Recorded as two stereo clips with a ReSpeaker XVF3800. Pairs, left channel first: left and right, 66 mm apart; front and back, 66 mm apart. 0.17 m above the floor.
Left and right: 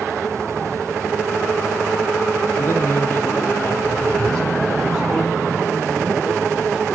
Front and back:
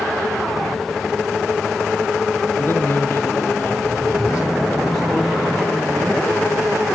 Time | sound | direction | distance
2.6 | a man speaking | 50° left | 3 m